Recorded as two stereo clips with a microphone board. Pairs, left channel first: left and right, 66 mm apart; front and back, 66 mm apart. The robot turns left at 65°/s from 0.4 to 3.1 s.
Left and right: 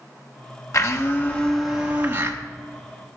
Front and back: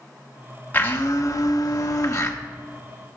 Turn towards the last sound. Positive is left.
turn(degrees=-95)